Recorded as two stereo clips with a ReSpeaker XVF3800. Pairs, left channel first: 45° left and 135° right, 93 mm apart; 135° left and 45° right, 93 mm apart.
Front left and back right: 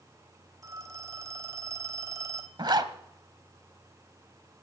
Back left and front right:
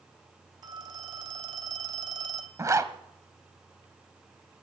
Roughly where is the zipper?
Right.